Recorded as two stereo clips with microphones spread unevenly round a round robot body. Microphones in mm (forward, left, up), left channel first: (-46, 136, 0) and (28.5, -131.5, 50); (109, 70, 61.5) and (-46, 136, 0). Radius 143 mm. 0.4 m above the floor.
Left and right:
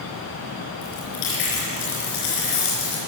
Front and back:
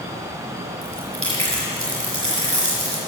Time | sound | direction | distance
0.8 | chewing | 105° left | 4.5 m